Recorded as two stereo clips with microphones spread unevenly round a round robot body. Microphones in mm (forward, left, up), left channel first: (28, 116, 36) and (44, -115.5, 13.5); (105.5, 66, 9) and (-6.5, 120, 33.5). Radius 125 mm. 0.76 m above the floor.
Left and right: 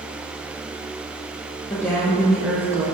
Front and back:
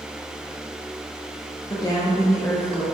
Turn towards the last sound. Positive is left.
turn(degrees=-70)